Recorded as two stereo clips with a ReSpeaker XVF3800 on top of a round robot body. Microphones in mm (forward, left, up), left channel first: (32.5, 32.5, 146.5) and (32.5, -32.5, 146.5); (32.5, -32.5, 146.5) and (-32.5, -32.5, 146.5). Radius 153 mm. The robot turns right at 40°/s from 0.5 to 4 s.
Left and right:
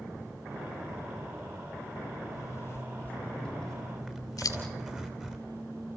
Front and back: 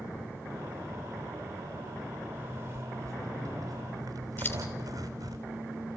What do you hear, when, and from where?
2.3 s a zipper: 125° left, 4 m; by 5.4 s 170° right, 4 m
4.4 s scissors: 60° left, 3.5 m